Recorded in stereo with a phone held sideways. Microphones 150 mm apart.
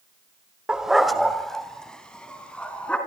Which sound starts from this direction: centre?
A dog barking, at 0.7 s.